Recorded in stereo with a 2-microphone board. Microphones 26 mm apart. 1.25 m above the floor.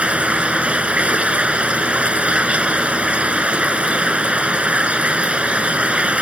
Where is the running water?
50° right (ahead or behind).